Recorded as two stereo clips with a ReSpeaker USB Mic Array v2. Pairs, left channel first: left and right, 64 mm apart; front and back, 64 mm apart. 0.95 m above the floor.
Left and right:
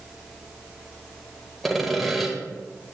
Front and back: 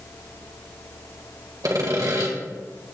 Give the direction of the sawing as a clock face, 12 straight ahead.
6 o'clock.